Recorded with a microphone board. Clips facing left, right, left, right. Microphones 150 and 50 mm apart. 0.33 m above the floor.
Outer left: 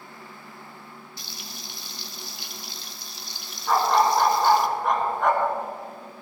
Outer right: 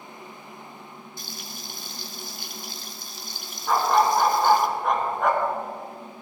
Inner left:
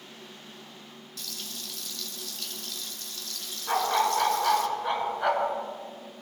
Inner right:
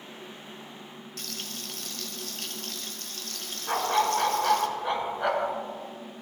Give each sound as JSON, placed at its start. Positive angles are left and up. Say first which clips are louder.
{"t": 1.2, "sound": "frying", "louder": "outer right 2 dB, inner right 2 dB", "side_deg": -50, "distance_m": 1.0}
{"t": 3.7, "sound": "a dog barking", "louder": "even, even", "side_deg": 0, "distance_m": 1.5}